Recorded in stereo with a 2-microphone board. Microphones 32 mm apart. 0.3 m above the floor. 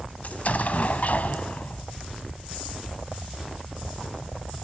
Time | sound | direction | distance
0.2 | an explosion | 50° left (ahead or behind) | 1.3 m